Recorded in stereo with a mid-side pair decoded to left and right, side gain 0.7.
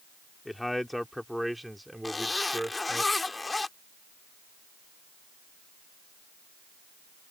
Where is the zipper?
15° left.